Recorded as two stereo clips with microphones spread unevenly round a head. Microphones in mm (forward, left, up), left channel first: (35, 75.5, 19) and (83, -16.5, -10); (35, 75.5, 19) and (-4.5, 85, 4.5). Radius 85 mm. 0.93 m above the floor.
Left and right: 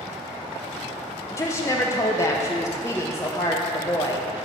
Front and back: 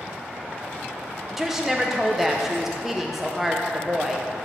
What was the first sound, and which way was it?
A woman speaking, 170° right.